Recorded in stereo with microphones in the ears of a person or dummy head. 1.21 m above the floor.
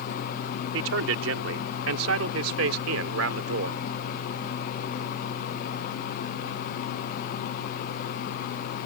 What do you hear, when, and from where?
0.7 s a man speaking: 75° right (ahead or behind); by 3.9 s 85° right